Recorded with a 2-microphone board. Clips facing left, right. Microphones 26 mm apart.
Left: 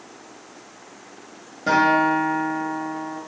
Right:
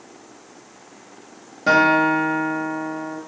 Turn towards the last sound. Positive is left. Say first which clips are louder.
# right 2 dB
turn(degrees=-25)  # may be behind; listen again after turning